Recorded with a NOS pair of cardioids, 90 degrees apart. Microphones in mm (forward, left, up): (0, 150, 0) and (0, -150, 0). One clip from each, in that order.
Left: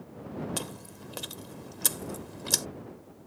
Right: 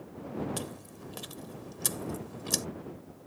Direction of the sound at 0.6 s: 35° left.